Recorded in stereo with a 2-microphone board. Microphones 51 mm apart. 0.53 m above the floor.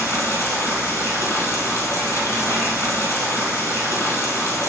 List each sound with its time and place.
0.0 s running water: 80° left, 2.0 m